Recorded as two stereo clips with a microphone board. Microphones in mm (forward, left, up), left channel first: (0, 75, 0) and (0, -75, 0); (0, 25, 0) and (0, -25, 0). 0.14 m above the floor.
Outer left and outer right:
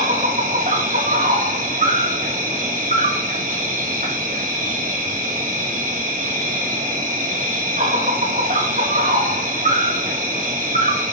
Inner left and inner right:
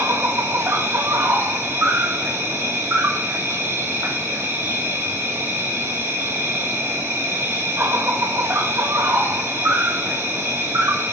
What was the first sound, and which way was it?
An insect, 60° right (ahead or behind).